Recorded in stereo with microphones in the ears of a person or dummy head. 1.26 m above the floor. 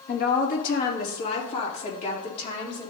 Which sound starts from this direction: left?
A woman speaking, at 0.1 s.